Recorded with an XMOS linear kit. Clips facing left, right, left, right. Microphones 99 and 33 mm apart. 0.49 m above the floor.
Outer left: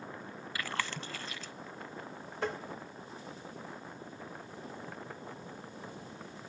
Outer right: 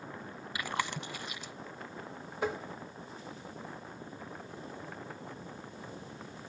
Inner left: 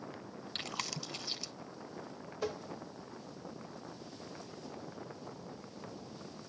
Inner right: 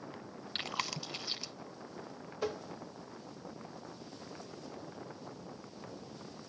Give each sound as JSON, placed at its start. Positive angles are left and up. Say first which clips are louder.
{"t": 0.6, "sound": "chewing", "louder": "outer right 2 dB, inner right 3 dB", "side_deg": -15, "distance_m": 0.5}
{"t": 2.4, "sound": "tapping", "louder": "outer right 2 dB, inner right 1 dB", "side_deg": -10, "distance_m": 1.0}